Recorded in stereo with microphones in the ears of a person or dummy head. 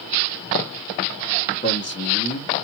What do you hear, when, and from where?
1.6 s a man speaking: 35° left (ahead or behind), 1.7 m